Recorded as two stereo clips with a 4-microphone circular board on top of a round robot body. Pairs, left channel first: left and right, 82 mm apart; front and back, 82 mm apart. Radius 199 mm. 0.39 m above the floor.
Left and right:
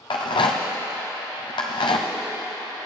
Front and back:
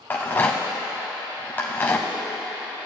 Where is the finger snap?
No finger snap in this recording.